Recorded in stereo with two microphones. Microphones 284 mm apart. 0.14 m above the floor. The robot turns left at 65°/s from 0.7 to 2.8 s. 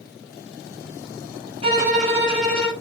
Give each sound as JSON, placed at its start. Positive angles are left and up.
{"t": 1.6, "sound": "a violin", "azimuth_deg": -155, "distance_m": 2.5}